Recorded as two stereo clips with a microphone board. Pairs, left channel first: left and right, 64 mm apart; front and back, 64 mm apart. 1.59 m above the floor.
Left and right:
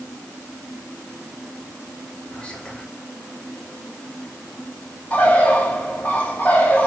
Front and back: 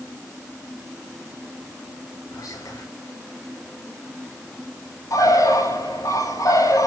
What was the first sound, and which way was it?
Whispering, 15° left.